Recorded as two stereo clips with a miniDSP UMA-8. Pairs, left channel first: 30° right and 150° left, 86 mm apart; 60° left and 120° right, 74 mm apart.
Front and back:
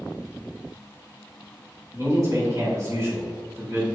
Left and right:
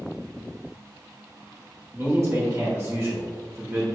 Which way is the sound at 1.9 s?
165° right.